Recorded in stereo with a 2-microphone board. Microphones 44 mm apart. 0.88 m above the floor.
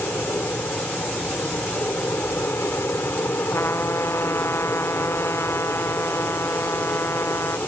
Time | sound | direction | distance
0.0 | an aircraft | 65° left (ahead or behind) | ?
3.5 | a trumpet | 85° left | ?